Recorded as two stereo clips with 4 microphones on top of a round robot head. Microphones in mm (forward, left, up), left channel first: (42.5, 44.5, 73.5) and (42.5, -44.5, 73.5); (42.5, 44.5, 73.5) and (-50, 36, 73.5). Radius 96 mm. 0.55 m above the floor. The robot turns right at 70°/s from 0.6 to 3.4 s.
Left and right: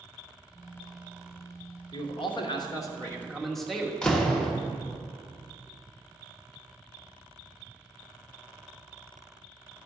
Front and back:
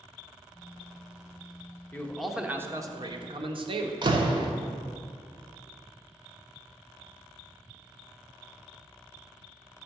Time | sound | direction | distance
1.9 | a man speaking | 75° left | 1.2 m
4.0 | a door slam | 170° left | 1.1 m